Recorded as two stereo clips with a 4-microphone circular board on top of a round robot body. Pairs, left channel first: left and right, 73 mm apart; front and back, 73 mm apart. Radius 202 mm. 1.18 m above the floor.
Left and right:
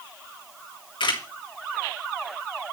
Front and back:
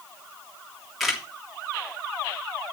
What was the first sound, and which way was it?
A camera shutter, 90° left.